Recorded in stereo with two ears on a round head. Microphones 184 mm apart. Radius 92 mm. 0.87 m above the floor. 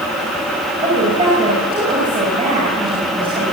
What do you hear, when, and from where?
0.8 s a woman speaking: 25° right (ahead or behind), 6 m